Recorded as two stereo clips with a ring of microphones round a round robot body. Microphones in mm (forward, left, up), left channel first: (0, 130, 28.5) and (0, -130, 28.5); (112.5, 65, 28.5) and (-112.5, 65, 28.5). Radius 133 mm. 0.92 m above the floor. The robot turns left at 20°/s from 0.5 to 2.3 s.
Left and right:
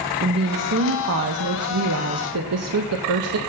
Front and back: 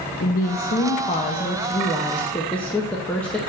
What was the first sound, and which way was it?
A woman speaking, 50° right.